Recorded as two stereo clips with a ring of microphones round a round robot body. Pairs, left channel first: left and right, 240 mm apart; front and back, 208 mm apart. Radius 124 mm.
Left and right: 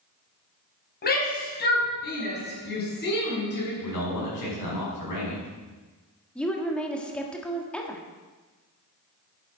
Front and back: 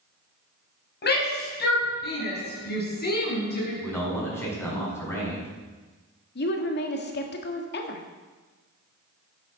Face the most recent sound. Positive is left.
turn(degrees=5)